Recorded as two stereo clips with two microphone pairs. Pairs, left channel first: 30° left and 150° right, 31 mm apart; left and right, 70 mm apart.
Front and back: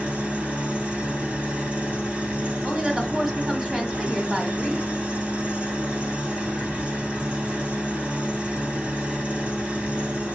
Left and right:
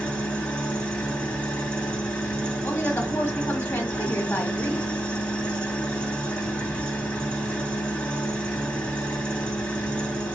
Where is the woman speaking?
140° left, 1.8 m.